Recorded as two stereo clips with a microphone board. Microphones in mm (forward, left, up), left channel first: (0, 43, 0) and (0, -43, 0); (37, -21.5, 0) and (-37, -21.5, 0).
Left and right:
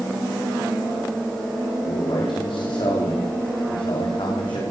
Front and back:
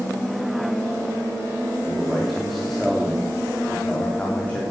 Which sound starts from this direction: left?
A man speaking, at 1.8 s.